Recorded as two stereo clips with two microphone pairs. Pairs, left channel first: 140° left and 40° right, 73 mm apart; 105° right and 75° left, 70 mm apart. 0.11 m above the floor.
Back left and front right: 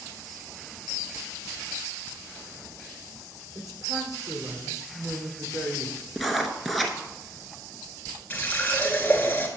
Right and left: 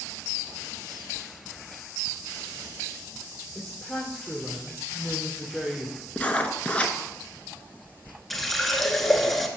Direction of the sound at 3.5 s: 15° right.